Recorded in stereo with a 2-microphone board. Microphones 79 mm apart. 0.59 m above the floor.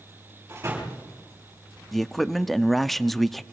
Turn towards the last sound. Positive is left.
turn(degrees=5)  # may be behind; listen again after turning